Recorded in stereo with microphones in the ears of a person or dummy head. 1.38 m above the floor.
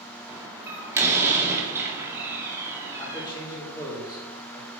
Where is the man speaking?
20° left (ahead or behind), 4.5 m.